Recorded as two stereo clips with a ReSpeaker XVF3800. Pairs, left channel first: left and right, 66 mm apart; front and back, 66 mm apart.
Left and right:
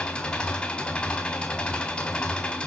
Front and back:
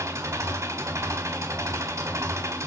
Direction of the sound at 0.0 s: 160° left.